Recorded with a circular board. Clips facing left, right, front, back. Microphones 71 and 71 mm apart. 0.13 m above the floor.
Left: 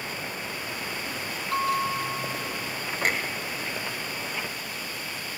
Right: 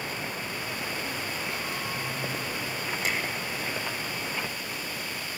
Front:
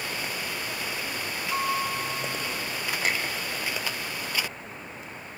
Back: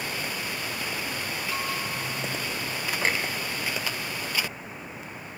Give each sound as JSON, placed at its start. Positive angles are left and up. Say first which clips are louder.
{"t": 1.5, "sound": "a bell", "louder": "left 8 dB, front 7 dB", "azimuth_deg": 75, "distance_m": 3.0}
{"t": 3.0, "sound": "a clunk", "louder": "left 5 dB, back 2 dB", "azimuth_deg": 130, "distance_m": 2.5}